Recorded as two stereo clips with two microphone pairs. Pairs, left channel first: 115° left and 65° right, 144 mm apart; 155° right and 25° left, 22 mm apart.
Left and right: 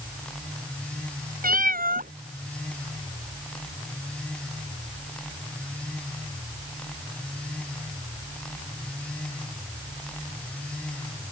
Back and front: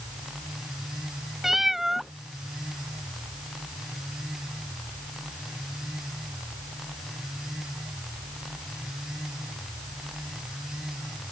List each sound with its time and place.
1.4 s a cat meowing: 55° right